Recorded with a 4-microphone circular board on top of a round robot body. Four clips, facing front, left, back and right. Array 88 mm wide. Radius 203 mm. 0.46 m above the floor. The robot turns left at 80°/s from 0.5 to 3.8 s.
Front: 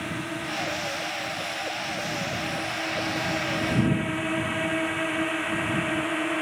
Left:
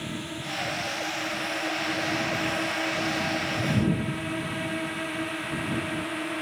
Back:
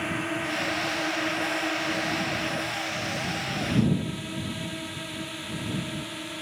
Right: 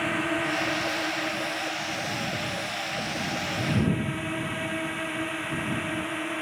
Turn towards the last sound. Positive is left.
turn(degrees=-5)